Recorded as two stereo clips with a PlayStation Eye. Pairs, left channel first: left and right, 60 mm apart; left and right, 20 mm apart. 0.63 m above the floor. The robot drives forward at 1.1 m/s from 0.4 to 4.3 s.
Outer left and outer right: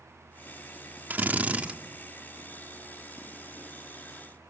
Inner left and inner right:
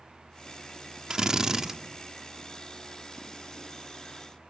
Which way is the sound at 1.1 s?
30° right (ahead or behind).